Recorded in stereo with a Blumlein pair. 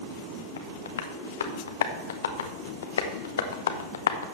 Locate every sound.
0.6 s tapping: 65° left, 0.9 m